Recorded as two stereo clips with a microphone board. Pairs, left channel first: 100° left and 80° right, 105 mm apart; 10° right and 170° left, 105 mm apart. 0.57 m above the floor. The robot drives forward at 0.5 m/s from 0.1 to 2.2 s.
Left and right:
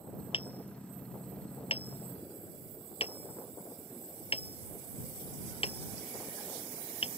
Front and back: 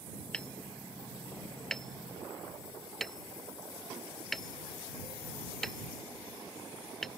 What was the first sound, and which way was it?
Hammering, 70° left.